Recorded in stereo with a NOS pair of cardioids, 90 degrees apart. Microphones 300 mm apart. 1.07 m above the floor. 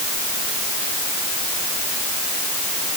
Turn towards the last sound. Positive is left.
No sound to turn to.